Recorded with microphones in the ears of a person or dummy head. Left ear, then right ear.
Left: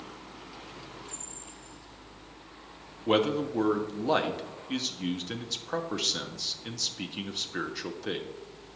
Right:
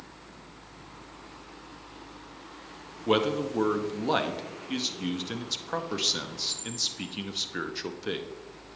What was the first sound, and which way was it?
A man speaking, 5° right (ahead or behind).